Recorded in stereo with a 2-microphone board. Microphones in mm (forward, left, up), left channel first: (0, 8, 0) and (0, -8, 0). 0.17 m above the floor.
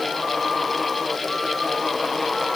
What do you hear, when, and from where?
Only background noise.